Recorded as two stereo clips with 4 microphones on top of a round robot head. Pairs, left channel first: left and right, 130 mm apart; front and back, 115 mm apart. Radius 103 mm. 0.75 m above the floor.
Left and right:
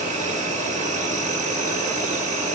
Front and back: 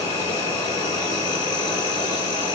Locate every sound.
0.0 s an insect: 60° right, 3.5 m